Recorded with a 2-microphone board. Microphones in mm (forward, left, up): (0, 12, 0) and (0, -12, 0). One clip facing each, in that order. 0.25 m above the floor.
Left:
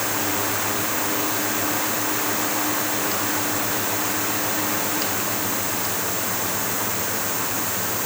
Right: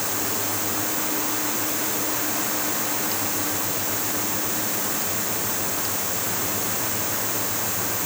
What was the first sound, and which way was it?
Only background noise.